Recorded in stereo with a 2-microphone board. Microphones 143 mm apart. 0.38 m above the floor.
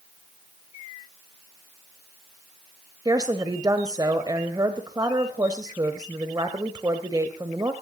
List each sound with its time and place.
3.0 s a woman speaking: 25° right (ahead or behind), 1.4 m